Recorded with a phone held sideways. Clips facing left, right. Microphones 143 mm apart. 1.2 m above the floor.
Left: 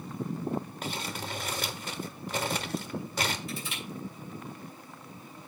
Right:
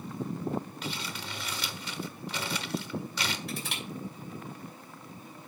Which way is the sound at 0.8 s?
50° left (ahead or behind).